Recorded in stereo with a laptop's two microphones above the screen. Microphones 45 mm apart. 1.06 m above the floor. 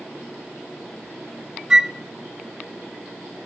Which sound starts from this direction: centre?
A flute, at 1.7 s.